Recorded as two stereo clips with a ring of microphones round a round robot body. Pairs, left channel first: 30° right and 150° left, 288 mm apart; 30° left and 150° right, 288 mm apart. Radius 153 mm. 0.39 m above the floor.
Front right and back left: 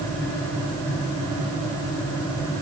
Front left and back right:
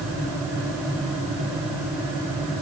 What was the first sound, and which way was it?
Only background noise.